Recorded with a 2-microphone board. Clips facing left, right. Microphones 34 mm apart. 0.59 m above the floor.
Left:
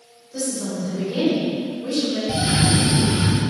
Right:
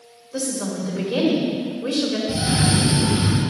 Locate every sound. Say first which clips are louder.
0.3 s a woman speaking: even; 70° right (ahead or behind), 1.9 m
2.3 s a cough: left 3 dB; 45° left (ahead or behind), 0.8 m